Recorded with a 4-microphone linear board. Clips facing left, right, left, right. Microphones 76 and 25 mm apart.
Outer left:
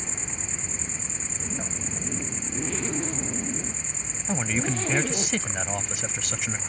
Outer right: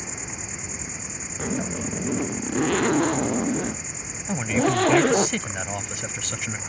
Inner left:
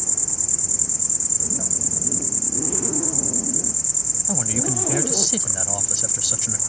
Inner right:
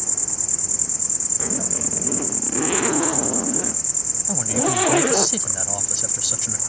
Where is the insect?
10° right (ahead or behind).